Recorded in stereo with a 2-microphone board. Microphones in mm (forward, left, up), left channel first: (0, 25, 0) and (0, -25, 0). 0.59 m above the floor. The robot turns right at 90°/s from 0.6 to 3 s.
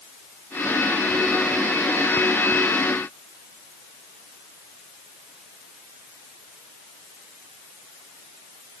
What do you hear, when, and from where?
Only background noise.